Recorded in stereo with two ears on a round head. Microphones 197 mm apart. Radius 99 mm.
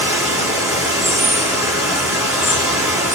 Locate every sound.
0.0 s running water: 15° right (ahead or behind), 1.3 m